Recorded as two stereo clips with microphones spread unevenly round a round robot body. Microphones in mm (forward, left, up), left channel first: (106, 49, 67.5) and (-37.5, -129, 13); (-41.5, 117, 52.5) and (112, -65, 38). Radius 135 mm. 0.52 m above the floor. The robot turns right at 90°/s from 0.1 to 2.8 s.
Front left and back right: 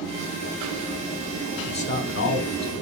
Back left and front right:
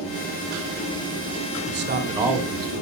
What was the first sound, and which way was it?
A man speaking, 25° right.